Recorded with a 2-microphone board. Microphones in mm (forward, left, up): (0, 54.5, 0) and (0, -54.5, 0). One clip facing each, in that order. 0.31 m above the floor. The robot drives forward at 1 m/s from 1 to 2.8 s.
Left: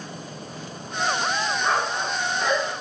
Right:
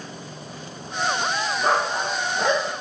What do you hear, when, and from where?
1.6 s a dog barking: 80° right, 3 m; by 2.7 s 75° right (ahead or behind), 3 m